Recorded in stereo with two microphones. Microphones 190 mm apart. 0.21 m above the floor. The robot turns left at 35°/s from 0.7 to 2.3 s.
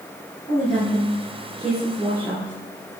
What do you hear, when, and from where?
0.5 s a woman speaking: 25° left, 4 m; by 2.5 s 30° right, 4 m